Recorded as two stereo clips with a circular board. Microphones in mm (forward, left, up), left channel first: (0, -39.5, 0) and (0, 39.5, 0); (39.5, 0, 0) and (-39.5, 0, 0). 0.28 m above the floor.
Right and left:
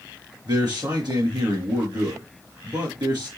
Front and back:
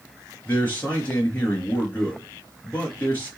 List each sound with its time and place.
0.5 s a man speaking: 65° left, 4 m